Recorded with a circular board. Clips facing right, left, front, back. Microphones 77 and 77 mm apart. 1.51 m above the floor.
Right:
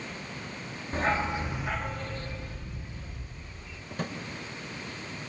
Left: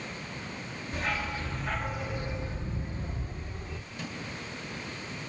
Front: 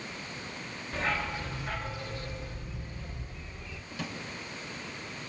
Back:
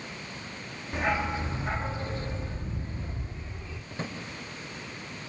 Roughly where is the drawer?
Behind right.